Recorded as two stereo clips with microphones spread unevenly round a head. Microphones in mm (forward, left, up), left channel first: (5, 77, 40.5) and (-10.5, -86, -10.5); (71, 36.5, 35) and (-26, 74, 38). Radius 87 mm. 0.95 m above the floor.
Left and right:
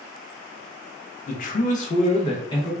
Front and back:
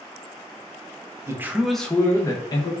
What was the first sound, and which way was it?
A man speaking, 115° left.